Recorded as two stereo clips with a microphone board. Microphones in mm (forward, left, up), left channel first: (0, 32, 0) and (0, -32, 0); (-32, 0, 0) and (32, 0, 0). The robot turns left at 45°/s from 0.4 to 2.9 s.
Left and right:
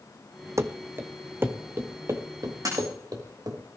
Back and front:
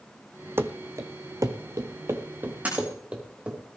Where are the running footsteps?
50° right, 0.9 m; by 3.6 s 70° right, 3.5 m.